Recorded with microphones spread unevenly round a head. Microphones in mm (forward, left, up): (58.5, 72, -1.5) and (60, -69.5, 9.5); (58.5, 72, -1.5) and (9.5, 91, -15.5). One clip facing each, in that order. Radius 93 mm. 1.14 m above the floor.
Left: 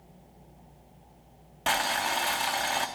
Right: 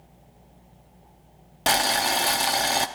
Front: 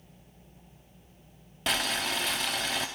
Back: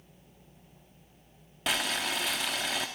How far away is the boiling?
About 0.7 m.